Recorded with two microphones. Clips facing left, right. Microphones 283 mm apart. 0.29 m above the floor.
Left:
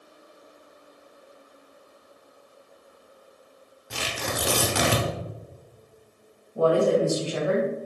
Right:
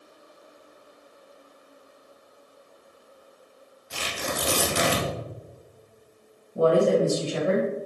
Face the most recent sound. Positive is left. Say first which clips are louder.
# right 1 dB
turn(degrees=-25)  # may be behind; listen again after turning